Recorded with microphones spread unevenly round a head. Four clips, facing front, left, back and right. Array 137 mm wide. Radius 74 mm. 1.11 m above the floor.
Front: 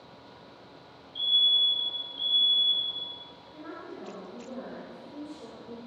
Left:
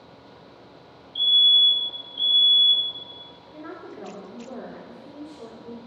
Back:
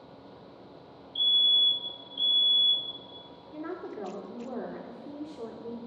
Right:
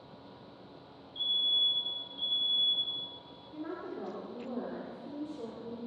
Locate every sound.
1.1 s a fire alarm: 145° left, 3 m
3.5 s a woman speaking: straight behind, 2.5 m